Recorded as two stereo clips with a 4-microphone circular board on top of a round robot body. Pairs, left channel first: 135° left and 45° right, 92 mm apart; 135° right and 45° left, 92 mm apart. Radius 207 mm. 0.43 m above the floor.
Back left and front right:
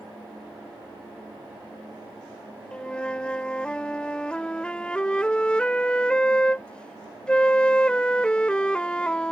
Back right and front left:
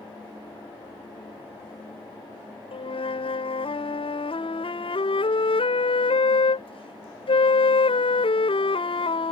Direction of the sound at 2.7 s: 145° right.